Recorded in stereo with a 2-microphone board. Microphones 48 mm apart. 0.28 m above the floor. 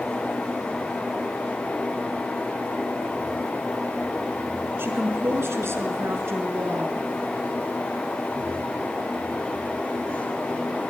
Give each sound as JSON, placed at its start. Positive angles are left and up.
{"t": 4.8, "sound": "a woman speaking", "side_deg": -50, "distance_m": 4.5}